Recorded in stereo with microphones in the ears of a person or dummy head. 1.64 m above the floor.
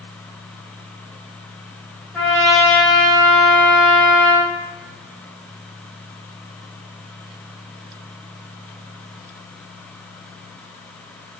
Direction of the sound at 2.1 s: Centre (ahead or behind).